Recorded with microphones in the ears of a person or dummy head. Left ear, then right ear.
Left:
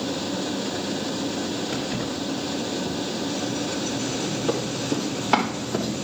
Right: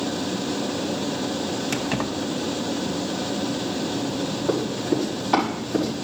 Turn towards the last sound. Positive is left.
turn(degrees=45)  # may be behind; listen again after turning